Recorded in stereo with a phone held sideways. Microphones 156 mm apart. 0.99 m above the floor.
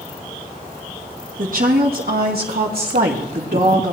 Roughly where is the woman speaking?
Right.